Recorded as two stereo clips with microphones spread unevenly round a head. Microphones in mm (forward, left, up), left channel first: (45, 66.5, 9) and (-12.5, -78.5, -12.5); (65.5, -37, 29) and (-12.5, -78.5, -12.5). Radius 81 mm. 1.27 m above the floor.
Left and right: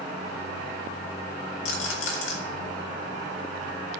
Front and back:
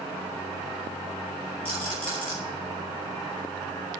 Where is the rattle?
80° left, 3 m.